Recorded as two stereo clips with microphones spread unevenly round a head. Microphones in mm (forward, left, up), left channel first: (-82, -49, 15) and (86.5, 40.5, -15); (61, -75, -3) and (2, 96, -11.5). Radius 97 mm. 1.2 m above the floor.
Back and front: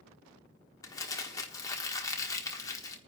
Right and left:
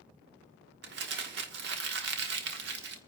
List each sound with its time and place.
0.8 s crumpling: 140° left, 1.3 m